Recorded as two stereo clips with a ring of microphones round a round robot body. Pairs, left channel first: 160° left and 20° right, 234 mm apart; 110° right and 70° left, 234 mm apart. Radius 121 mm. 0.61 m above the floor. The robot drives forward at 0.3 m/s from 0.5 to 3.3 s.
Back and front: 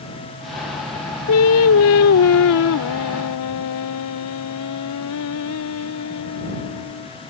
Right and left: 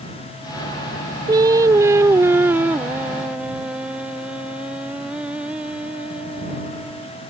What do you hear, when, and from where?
1.3 s singing: 140° left; by 7.1 s 155° left